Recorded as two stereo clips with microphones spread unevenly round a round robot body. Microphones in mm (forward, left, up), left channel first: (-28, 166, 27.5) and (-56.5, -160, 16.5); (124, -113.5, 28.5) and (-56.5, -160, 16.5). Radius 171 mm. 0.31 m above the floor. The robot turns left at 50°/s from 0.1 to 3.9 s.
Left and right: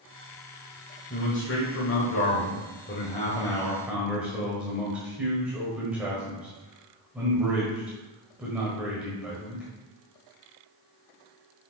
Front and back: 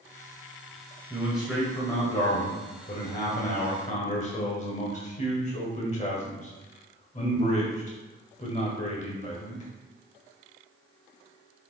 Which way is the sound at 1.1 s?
130° left.